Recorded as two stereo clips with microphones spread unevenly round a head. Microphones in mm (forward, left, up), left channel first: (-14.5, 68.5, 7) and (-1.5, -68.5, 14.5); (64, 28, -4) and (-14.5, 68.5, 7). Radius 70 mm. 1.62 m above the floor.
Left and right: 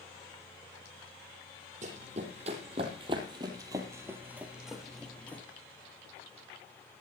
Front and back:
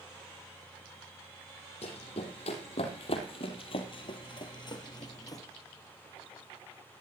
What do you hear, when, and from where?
1.8 s running footsteps: 45° right, 4 m; by 5.4 s 20° left, 2.5 m